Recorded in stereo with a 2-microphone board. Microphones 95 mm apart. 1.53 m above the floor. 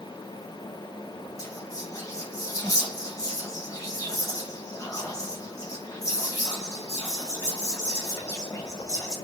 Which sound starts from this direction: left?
Whispering, at 1.4 s.